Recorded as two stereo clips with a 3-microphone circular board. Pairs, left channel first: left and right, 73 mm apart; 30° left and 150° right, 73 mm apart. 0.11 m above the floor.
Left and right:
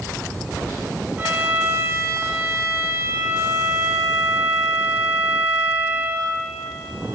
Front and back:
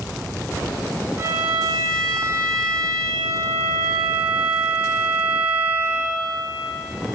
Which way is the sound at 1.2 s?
135° right.